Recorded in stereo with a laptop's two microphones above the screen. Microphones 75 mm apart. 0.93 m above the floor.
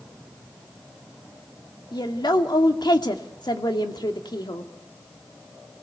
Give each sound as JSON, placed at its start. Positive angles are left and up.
{"t": 1.9, "sound": "a woman speaking", "side_deg": 70, "distance_m": 2.0}